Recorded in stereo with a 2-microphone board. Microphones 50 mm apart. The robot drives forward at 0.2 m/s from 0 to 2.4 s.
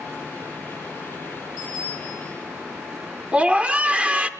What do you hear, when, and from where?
1.6 s a bicycle bell: 30° right (ahead or behind), 9 m
3.3 s a scream: 25° right (ahead or behind), 0.8 m